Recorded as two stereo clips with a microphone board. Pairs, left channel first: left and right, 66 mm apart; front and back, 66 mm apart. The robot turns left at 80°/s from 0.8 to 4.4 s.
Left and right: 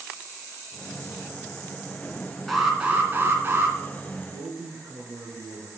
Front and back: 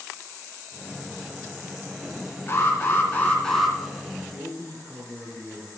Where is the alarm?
Straight ahead, 2.5 m; by 3.8 s 100° right, 2.5 m.